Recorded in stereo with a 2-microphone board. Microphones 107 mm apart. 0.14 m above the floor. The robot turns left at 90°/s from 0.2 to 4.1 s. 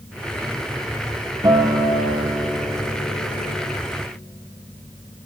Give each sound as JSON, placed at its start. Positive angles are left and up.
{"t": 1.4, "sound": "a guitar", "azimuth_deg": -45, "distance_m": 0.9}